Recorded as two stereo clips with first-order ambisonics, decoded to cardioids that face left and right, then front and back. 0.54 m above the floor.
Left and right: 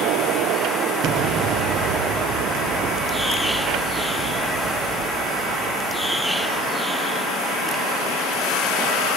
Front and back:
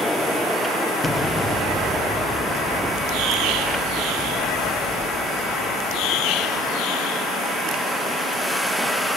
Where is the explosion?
85° right, 0.6 m.